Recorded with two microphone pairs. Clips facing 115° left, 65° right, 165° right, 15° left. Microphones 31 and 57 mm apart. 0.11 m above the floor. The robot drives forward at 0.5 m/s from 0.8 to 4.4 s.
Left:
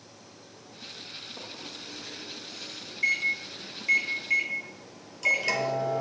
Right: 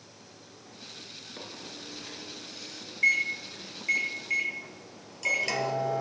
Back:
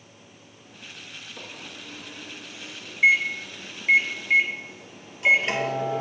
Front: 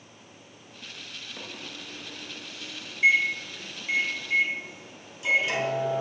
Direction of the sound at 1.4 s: 50° right.